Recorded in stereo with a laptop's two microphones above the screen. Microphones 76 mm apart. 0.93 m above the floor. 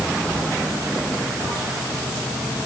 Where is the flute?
No flute in this recording.